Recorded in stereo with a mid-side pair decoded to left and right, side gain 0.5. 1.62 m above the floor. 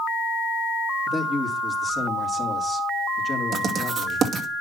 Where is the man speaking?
25° left, 4 m.